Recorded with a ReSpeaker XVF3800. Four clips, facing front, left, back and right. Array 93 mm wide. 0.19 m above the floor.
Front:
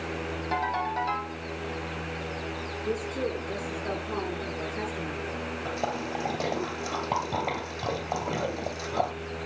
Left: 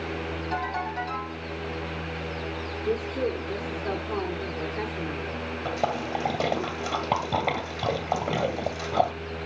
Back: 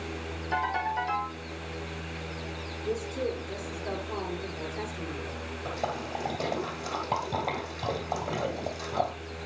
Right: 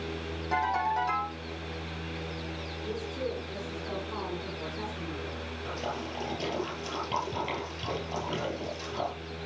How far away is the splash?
About 2 m.